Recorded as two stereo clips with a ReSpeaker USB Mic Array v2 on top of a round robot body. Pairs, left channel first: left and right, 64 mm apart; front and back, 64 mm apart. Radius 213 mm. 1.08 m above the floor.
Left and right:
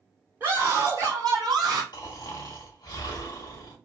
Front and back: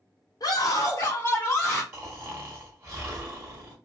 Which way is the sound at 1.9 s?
120° left.